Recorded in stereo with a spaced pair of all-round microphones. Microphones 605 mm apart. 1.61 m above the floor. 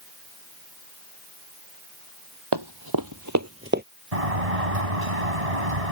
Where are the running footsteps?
40° right (ahead or behind); by 3.8 s 15° right (ahead or behind).